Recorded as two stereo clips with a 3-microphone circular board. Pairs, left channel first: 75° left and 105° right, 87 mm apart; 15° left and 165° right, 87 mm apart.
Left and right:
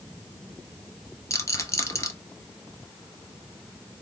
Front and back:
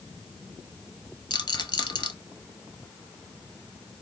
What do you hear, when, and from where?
1.3 s a rattle: 30° left, 0.9 m